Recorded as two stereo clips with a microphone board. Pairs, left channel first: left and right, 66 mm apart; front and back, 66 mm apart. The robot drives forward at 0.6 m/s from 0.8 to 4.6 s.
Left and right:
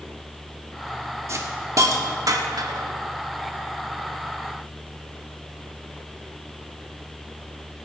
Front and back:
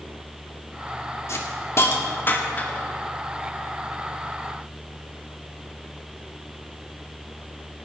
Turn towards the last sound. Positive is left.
turn(degrees=-110)